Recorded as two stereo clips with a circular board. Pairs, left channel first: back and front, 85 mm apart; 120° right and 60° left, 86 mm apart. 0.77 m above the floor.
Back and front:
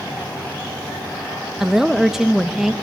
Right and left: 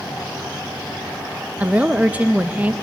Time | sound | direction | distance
1.6 | a woman speaking | 70° left | 0.5 m